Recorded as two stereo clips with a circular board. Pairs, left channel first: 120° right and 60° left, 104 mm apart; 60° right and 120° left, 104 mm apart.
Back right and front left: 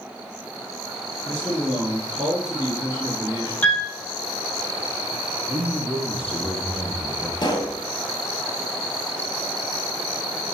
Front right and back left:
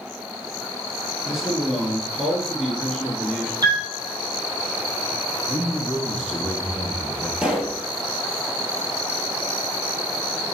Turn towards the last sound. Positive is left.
turn(degrees=-160)